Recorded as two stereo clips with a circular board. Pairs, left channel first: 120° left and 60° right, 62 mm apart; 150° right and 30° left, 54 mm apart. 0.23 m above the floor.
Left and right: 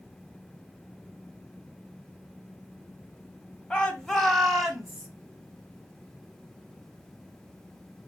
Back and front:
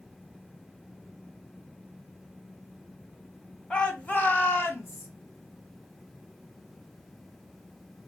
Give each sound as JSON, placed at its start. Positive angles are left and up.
{"t": 3.7, "sound": "a shout", "azimuth_deg": 165, "distance_m": 1.2}